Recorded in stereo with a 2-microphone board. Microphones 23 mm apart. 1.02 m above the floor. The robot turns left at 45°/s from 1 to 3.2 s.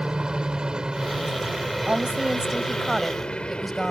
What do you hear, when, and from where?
0.0 s a helicopter: 140° right; by 3.9 s 125° left
1.9 s a woman speaking: 125° right; by 3.9 s 175° left